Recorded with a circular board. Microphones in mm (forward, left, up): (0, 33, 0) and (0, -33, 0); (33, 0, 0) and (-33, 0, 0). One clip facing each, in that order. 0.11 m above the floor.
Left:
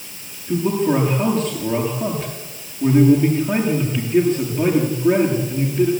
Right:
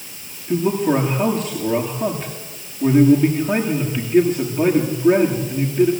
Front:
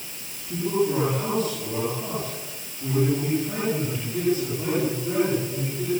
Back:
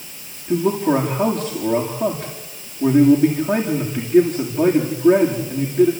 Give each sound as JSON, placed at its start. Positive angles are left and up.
{"t": 0.5, "sound": "a man speaking", "azimuth_deg": -170, "distance_m": 9.5}